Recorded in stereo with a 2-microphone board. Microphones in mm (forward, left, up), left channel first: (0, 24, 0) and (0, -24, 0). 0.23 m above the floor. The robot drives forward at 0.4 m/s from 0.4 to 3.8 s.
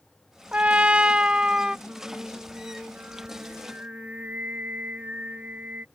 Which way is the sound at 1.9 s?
30° right (ahead or behind).